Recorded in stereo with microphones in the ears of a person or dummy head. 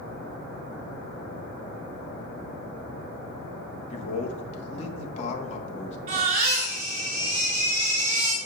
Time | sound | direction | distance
3.9 | a man speaking | 40° left (ahead or behind) | 1.5 m
6.1 | a baby crying | 45° right (ahead or behind) | 4 m